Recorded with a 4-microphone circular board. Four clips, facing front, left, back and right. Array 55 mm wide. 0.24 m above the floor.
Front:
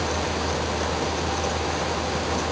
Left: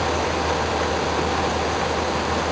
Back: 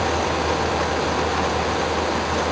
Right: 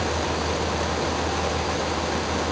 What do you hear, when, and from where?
Only background noise.